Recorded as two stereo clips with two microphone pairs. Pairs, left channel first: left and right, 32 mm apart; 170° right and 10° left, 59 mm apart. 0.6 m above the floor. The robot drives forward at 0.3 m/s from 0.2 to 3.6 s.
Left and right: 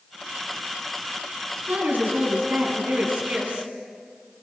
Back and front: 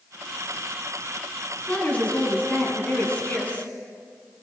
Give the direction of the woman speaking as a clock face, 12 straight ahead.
4 o'clock.